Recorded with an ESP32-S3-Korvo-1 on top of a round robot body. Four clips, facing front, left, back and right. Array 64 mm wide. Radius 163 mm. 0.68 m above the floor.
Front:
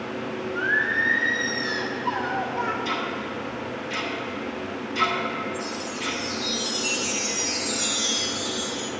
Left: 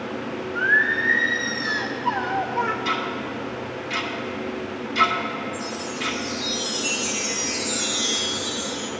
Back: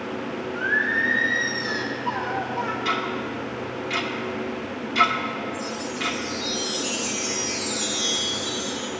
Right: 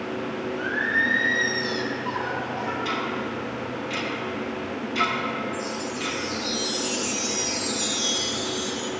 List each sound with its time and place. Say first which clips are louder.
0.6 s singing: left 5 dB, even; 85° left, 1.7 m
2.9 s ticking: left 1 dB, back 2 dB; 165° left, 1.9 m
5.5 s a chime: even, back 1 dB; 50° left, 0.8 m